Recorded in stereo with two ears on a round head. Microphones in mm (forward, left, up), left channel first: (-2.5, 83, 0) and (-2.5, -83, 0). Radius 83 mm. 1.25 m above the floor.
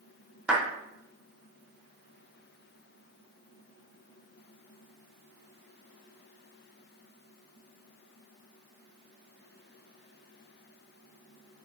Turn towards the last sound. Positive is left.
turn(degrees=-5)  # may be behind; listen again after turning